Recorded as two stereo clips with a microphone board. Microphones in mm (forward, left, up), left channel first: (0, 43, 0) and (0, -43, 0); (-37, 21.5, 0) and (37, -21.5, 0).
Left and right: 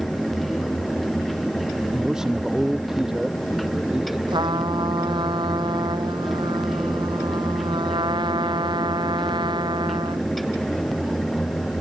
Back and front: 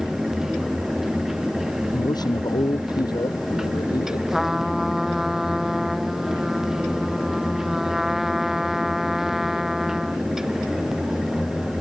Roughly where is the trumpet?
Behind right.